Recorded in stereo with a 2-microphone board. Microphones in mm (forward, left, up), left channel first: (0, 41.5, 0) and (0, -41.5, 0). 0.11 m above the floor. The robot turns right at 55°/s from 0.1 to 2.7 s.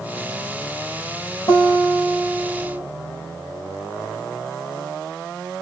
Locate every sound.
1.5 s a guitar: 65° left, 1.8 m; by 2.8 s 130° left, 1.8 m